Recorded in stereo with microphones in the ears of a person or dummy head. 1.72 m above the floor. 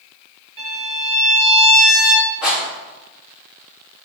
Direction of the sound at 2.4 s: 10° right (ahead or behind).